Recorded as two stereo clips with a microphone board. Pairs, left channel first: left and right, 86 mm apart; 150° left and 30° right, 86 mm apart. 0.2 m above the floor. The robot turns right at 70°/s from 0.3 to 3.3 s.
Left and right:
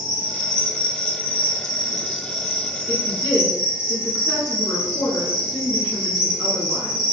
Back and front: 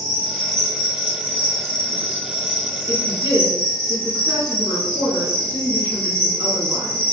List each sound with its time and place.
0.0 s an insect: 135° right, 1.9 m; by 7.1 s 75° left, 1.9 m
2.9 s a woman speaking: 30° right, 1.5 m; by 7.0 s straight ahead, 1.5 m